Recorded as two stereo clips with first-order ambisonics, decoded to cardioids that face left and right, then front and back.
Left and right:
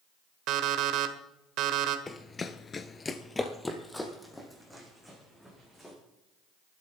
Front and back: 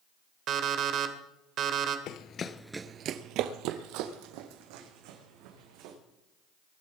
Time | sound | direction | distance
0.5 | an alarm clock | 130° right | 1.2 m
2.1 | running footsteps | 20° left | 1.0 m